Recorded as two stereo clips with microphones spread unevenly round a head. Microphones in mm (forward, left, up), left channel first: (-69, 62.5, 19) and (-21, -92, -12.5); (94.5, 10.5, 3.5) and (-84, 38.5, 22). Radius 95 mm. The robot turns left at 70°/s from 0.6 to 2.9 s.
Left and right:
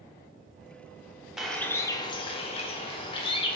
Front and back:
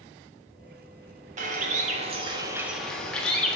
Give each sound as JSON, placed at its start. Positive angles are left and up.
{"t": 1.4, "sound": "a bird", "azimuth_deg": -170, "distance_m": 0.5}